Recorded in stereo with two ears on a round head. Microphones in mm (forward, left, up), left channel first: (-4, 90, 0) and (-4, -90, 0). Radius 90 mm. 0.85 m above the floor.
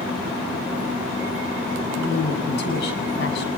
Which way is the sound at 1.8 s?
60° left (ahead or behind).